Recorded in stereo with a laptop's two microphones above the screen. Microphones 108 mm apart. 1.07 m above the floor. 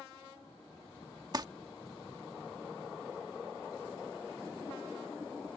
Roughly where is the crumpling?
Right.